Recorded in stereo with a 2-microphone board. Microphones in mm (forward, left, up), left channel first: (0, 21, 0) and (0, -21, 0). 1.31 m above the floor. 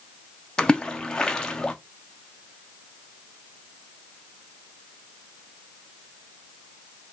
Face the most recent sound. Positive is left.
turn(degrees=20)  # may be behind; listen again after turning